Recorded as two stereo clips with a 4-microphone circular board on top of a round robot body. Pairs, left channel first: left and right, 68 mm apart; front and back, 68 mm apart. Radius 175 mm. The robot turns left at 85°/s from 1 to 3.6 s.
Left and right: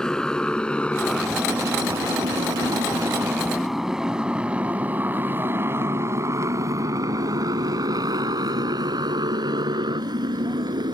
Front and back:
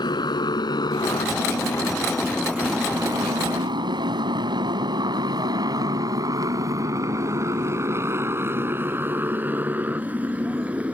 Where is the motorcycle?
10° left; by 10.9 s 105° right.